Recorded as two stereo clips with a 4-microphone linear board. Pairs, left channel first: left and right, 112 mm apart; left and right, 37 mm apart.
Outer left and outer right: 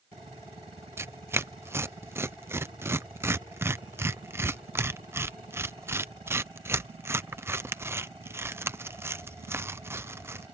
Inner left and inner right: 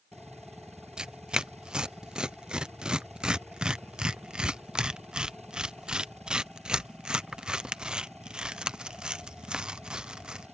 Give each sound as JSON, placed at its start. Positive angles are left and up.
{"t": 1.0, "sound": "tearing paper", "side_deg": -20}